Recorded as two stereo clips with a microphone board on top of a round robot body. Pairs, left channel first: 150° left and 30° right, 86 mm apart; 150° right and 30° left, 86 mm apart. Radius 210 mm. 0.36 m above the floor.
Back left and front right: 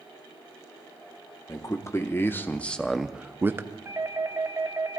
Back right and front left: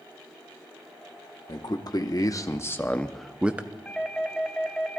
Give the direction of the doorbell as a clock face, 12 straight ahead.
2 o'clock.